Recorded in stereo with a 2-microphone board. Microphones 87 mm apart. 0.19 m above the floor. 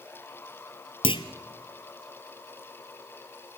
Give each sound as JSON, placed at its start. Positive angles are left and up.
{"t": 1.0, "sound": "a clunk", "side_deg": 80, "distance_m": 1.2}